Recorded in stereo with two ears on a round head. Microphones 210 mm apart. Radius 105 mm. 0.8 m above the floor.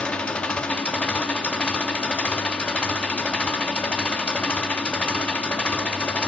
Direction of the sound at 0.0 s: 5° left (ahead or behind).